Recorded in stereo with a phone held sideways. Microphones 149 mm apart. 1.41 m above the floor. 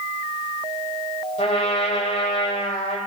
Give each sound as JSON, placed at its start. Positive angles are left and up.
{"t": 1.4, "sound": "a trumpet", "side_deg": 50, "distance_m": 5.0}